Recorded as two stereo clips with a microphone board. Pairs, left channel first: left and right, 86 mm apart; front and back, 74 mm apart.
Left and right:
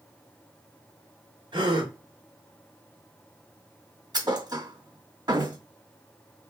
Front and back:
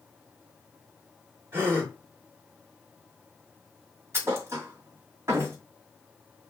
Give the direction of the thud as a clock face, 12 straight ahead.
4 o'clock.